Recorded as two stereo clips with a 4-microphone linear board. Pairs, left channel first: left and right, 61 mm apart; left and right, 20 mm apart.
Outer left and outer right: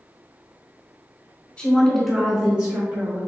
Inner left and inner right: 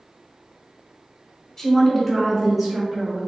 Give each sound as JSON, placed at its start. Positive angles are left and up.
{"t": 1.6, "sound": "a woman speaking", "side_deg": 20, "distance_m": 1.1}